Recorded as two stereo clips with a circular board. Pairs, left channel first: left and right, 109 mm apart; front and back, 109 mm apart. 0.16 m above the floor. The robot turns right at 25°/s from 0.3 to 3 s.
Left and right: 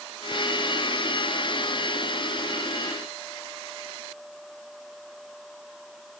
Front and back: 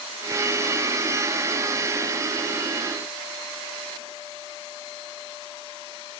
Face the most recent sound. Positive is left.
No sound to turn to.